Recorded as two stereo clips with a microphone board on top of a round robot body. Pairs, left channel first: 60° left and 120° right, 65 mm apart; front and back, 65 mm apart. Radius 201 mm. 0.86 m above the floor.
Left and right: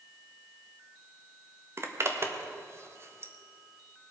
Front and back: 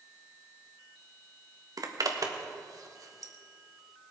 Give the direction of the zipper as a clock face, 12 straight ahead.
5 o'clock.